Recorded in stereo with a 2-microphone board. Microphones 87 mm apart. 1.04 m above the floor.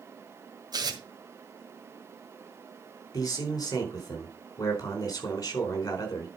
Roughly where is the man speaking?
Left.